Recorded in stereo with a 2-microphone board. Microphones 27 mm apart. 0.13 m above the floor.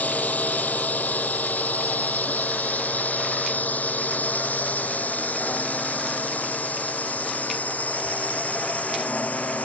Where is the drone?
70° left (ahead or behind); by 9.7 s 60° left (ahead or behind).